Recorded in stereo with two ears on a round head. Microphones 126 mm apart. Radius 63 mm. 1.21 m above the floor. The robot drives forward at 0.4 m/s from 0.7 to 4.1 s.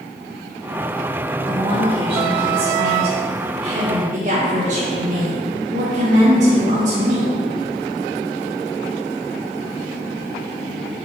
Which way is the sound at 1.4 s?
35° right (ahead or behind).